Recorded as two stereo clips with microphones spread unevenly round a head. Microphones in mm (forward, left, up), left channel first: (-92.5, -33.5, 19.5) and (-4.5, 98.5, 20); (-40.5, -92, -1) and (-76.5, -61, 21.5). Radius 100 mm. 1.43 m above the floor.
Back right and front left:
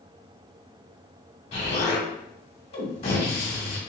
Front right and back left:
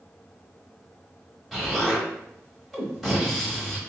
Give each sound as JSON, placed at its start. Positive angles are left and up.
{"t": 1.5, "sound": "an explosion", "azimuth_deg": -155, "distance_m": 1.2}